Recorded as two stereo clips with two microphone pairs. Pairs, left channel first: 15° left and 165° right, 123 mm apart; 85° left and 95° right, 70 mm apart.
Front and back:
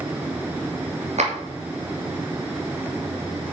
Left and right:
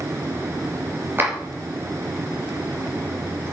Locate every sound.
1.2 s a clap: 150° right, 3.5 m